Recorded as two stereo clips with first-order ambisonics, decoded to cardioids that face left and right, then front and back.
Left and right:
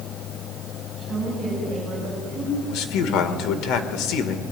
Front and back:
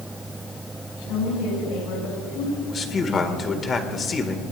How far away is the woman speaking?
About 6.5 m.